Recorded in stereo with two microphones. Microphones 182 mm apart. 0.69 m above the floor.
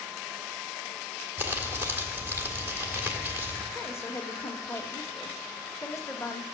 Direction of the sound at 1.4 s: 10° right (ahead or behind).